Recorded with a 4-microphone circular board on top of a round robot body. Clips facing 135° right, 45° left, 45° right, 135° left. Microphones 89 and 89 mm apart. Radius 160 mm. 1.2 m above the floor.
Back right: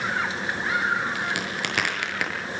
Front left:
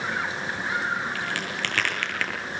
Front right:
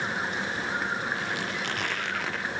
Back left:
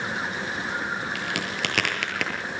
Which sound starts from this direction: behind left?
A crack, at 1.1 s.